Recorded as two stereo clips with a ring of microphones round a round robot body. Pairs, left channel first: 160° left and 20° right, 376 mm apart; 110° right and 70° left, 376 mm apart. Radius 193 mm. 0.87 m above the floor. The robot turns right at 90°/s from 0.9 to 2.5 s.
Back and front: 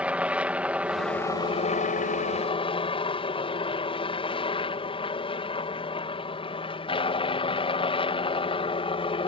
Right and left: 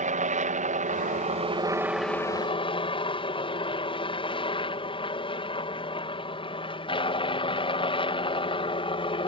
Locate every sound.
0.0 s a helicopter: 60° left; by 9.3 s 160° right